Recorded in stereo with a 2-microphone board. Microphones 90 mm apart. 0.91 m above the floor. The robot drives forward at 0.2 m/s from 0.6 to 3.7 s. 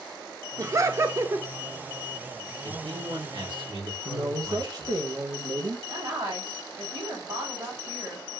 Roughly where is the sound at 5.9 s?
Right.